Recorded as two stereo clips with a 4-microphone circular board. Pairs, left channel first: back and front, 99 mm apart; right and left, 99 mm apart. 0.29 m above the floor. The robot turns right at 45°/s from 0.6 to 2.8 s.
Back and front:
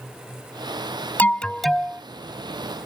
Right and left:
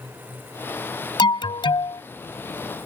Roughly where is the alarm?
Right.